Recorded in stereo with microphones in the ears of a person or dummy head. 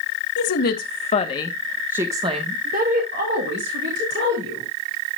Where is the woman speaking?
55° left (ahead or behind), 1.6 m; by 4.7 s 60° right (ahead or behind), 3 m.